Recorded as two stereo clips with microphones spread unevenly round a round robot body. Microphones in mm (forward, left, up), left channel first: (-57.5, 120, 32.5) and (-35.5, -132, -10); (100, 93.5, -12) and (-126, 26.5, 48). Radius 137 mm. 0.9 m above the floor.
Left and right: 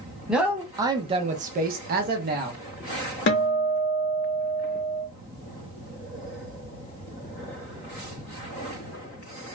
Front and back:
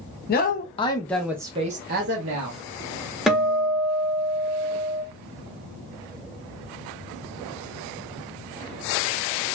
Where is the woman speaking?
5° right, 0.7 m; by 2.6 s 125° right, 0.8 m.